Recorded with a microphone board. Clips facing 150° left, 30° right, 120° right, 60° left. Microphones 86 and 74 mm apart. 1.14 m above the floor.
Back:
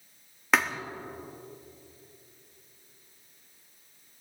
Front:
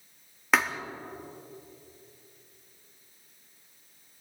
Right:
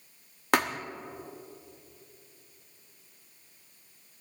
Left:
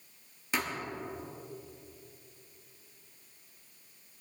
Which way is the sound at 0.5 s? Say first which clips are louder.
Even, right 8 dB; 120° right.